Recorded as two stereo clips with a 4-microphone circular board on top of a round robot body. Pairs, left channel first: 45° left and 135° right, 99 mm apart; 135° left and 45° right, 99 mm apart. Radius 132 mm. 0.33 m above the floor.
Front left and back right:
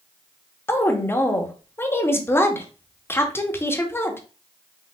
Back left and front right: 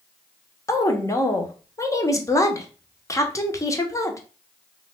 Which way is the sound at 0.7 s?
95° left.